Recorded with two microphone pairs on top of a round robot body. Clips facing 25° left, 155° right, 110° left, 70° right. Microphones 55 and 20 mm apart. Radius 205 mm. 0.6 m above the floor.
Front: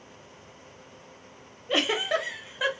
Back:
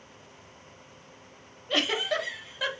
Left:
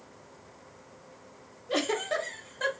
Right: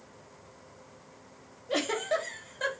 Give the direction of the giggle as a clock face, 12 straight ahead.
11 o'clock.